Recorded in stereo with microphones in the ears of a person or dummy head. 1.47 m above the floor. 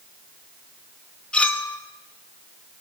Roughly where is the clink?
Centre.